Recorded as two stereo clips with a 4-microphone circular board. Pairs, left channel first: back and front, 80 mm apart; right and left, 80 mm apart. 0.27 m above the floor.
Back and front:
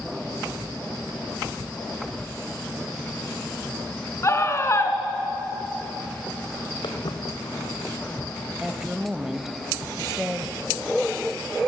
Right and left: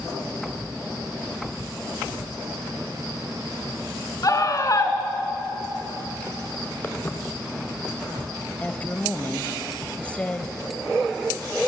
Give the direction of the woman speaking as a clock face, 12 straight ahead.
2 o'clock.